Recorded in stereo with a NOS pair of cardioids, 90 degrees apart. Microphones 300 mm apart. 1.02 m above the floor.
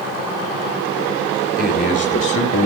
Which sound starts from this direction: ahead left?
A man speaking, at 1.6 s.